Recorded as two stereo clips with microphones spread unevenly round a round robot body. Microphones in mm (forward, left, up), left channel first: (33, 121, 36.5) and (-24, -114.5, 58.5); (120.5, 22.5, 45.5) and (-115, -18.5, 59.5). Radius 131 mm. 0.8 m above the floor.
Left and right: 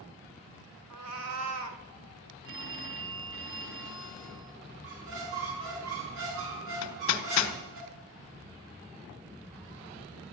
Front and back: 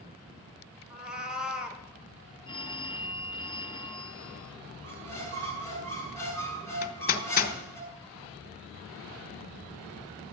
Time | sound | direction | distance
0.9 | a cat meowing | 85° right | 1.9 m
2.5 | a phone ringing | 60° right | 4 m
4.8 | a squeak | 70° right | 5.5 m
6.8 | hammering | 60° left | 1.7 m